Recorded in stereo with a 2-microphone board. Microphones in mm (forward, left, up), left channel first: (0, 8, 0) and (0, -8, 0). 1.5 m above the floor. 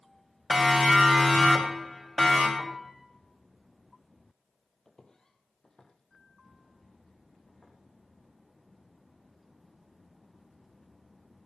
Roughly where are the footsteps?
Left.